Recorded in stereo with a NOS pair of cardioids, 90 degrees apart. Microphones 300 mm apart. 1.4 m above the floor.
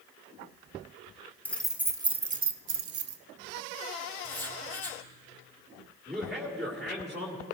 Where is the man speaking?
Straight ahead, 2 m.